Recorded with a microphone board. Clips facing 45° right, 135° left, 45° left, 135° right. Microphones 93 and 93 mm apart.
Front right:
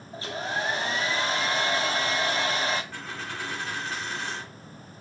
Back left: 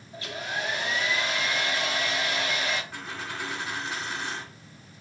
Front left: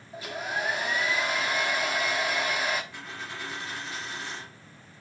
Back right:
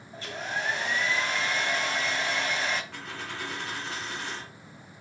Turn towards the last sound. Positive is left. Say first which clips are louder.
# even, back right 1 dB
turn(degrees=-150)